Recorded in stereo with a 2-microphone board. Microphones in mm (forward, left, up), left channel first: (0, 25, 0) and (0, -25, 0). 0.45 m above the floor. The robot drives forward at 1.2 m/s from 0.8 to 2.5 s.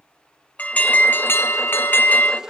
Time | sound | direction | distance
0.6 | an alarm | 30° left (ahead or behind) | 1.2 m